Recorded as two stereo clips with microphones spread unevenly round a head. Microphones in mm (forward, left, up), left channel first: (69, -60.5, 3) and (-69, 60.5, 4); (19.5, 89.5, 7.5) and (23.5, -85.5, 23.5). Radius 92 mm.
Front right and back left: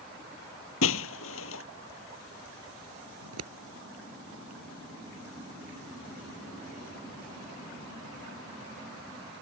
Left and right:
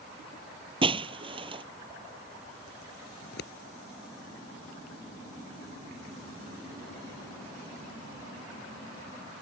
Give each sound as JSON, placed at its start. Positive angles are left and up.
{"t": 0.8, "sound": "breaking glass", "azimuth_deg": -30}
{"t": 3.2, "sound": "scissors", "azimuth_deg": 135}